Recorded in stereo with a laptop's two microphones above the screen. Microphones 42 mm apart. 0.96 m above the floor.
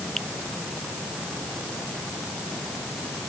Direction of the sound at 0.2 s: 10° left (ahead or behind).